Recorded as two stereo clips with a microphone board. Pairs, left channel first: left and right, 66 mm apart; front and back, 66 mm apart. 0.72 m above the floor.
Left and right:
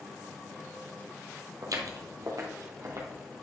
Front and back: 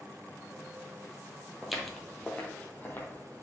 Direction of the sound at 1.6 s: 95° right.